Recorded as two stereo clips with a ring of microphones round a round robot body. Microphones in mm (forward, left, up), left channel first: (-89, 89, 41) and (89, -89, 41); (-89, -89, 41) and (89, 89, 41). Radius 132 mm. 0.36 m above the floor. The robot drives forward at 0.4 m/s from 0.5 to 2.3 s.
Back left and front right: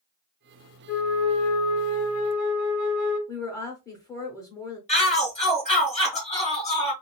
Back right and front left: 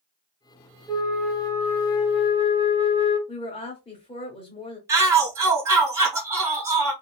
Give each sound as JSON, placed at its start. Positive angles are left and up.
{"t": 0.9, "sound": "a flute", "azimuth_deg": 135, "distance_m": 0.8}
{"t": 3.3, "sound": "a woman speaking", "azimuth_deg": -165, "distance_m": 0.8}
{"t": 4.9, "sound": "a shout", "azimuth_deg": 110, "distance_m": 0.9}